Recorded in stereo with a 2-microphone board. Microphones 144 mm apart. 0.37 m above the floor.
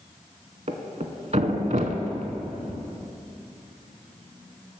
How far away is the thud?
About 0.7 m.